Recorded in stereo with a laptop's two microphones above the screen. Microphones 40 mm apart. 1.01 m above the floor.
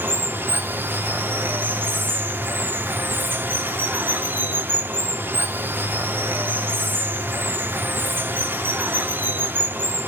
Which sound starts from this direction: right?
Running water, at 0.0 s.